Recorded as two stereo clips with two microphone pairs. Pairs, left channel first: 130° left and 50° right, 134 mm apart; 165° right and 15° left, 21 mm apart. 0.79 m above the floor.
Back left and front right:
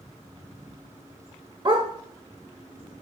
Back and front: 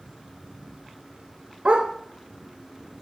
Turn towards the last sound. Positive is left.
turn(degrees=-10)